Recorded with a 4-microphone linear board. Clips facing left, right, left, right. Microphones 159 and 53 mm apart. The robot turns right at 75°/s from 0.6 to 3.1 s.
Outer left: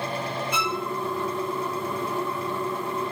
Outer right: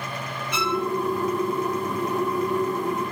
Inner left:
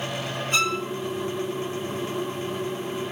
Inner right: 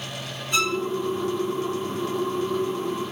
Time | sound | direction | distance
0.5 | a violin | 50° left (ahead or behind) | 1.2 m